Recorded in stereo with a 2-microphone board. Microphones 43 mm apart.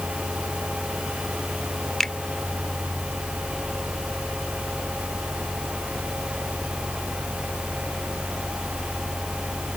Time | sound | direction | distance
2.0 | a finger snap | 10° left (ahead or behind) | ?